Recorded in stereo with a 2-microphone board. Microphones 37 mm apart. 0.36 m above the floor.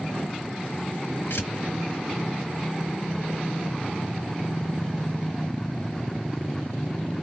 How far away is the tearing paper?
About 1.0 m.